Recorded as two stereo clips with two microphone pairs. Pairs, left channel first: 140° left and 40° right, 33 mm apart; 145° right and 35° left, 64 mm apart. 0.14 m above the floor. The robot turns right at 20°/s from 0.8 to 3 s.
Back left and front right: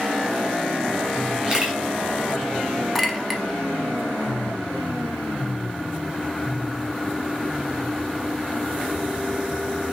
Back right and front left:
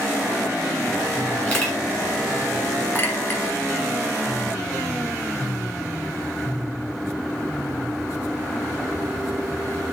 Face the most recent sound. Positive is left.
turn(degrees=-120)